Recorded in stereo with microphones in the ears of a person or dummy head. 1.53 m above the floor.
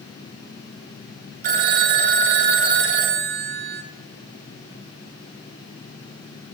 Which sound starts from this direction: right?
A phone ringing, at 1.4 s.